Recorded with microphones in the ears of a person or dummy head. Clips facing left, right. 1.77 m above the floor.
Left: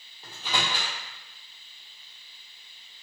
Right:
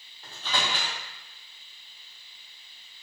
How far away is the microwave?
About 0.9 m.